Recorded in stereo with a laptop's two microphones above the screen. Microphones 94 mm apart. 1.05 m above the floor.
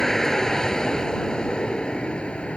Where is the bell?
I don't hear a bell.